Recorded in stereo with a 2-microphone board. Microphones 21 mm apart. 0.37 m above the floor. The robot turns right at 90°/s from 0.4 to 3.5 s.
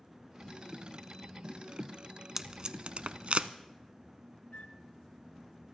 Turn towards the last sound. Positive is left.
turn(degrees=85)